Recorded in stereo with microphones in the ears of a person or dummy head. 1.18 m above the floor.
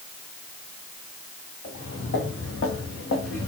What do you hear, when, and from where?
1.6 s footsteps: 55° left (ahead or behind), 7 m; by 3.5 s 60° left (ahead or behind), 4.5 m